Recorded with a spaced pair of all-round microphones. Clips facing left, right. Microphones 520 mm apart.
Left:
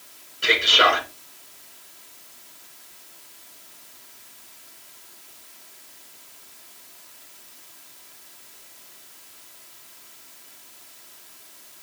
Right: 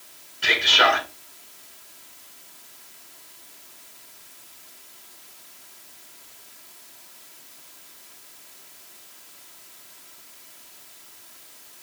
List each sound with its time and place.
0.4 s a man speaking: 10° right (ahead or behind), 2 m